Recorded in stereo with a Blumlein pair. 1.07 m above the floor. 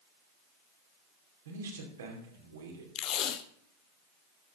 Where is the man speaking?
65° right, 3 m.